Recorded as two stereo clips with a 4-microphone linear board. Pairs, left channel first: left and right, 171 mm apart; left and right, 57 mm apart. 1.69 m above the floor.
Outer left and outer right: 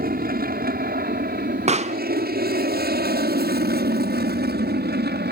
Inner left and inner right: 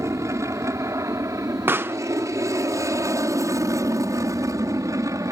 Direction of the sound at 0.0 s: 60° right (ahead or behind).